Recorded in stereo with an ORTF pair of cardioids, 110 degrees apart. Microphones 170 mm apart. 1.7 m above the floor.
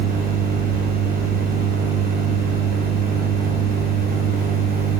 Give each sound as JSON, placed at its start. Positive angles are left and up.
{"t": 0.0, "sound": "a machine running", "azimuth_deg": -65, "distance_m": 5.5}